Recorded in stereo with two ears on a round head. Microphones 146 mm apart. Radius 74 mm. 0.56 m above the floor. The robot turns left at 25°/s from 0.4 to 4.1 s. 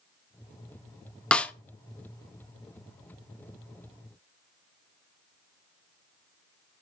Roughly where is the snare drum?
Centre.